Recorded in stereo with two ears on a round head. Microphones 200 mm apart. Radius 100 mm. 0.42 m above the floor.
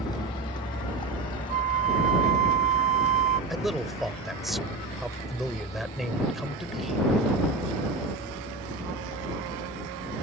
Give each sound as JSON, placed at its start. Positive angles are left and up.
{"t": 0.0, "sound": "a vehicle", "side_deg": 20}
{"t": 1.5, "sound": "a flute", "side_deg": -30}
{"t": 3.5, "sound": "a man speaking", "side_deg": 0}